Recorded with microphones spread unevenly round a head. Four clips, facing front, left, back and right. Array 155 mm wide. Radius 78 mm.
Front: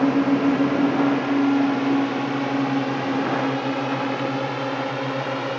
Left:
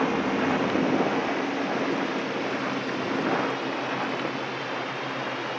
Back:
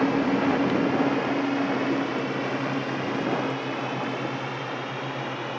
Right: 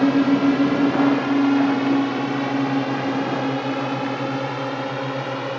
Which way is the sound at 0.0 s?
60° right.